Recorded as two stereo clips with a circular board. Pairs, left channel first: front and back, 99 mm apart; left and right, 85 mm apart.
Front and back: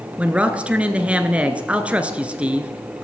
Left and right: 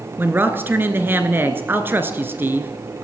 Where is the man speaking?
120° right, 1.1 m.